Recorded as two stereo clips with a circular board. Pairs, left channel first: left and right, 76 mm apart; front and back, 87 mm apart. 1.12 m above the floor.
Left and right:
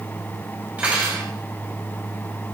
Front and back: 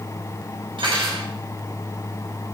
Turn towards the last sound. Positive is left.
turn(degrees=-160)